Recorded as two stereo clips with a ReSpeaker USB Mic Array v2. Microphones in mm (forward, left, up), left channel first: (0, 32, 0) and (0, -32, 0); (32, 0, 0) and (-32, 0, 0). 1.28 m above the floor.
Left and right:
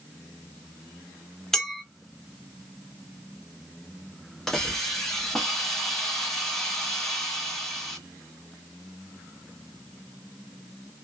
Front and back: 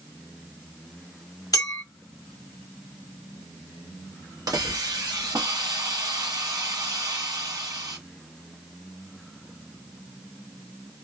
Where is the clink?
10° left, 0.8 m.